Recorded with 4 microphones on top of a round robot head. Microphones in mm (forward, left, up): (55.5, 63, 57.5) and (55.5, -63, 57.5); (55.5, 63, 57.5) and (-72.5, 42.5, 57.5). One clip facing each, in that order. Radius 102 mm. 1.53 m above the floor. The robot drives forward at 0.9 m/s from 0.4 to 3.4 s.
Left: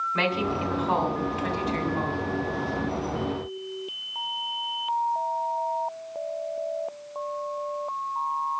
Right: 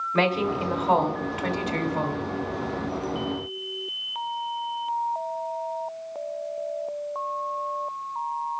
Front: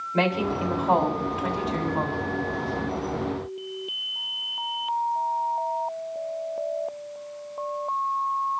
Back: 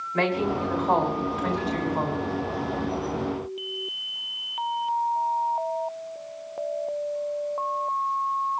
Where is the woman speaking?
60° right, 3.5 m; by 2.3 s 90° right, 3 m.